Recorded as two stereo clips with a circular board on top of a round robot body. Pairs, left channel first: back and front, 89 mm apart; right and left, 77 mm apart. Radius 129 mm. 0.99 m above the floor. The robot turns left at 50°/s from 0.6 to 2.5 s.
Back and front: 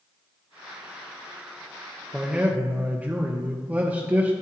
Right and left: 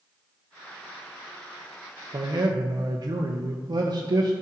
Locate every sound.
2.1 s a man speaking: 90° left, 0.9 m; by 4.3 s 70° left, 0.9 m